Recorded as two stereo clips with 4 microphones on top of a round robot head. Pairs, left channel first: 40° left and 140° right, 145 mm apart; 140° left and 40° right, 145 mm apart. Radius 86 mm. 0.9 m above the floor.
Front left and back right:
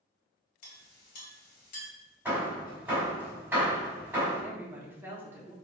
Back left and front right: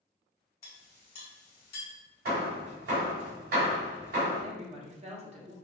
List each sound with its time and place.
0.6 s a clink: 70° left, 1.4 m
2.2 s hammering: 65° right, 1.7 m
4.4 s a woman speaking: 70° right, 1.2 m